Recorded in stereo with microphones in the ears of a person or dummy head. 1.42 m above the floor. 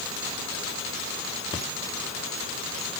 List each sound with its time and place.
1.5 s breathing: 20° left (ahead or behind), 2.5 m